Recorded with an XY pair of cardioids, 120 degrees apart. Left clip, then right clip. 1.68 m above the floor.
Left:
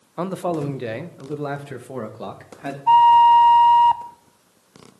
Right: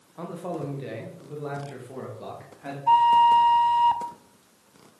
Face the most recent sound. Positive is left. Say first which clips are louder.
# left 6 dB
turn(degrees=20)